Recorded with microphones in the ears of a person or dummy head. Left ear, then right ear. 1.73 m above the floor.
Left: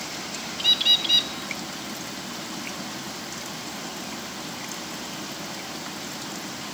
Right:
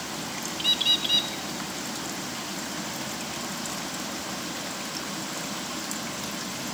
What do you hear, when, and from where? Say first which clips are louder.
0.6 s a bird: left 4 dB; 5° left (ahead or behind), 0.5 m